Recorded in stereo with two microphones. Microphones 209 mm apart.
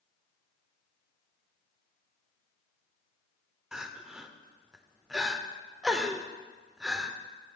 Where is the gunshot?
I don't hear a gunshot.